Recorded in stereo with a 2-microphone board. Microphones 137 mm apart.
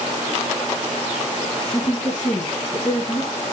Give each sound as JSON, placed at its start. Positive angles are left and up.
{"t": 1.7, "sound": "a woman speaking", "side_deg": 60, "distance_m": 5.0}